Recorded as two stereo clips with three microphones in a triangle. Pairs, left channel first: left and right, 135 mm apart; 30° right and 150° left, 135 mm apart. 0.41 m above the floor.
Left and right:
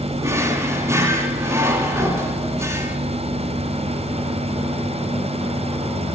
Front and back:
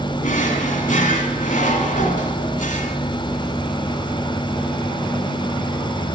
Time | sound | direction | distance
0.2 | a drawer | 20° right | 2.5 m